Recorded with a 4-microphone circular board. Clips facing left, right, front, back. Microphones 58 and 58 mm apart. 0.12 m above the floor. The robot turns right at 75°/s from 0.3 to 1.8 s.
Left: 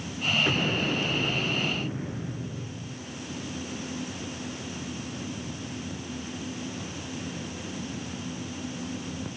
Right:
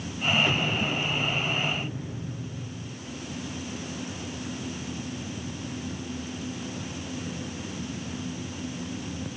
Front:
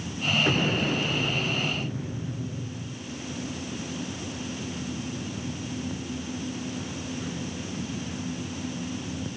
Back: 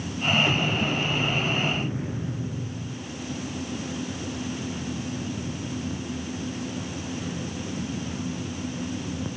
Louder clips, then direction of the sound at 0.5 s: Even, even; 25° left.